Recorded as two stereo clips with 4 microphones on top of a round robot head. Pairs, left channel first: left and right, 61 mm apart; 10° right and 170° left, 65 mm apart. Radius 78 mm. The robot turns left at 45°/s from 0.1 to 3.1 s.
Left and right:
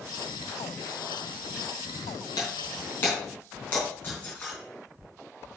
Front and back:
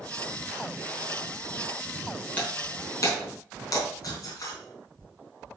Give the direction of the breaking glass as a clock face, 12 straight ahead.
10 o'clock.